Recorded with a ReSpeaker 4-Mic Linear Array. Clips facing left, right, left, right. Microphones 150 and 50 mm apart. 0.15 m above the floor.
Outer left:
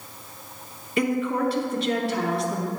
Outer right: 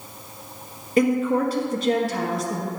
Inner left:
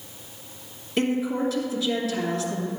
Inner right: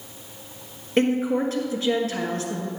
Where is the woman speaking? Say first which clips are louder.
Outer right 4 dB, inner right 3 dB; 40° right (ahead or behind), 1.8 m.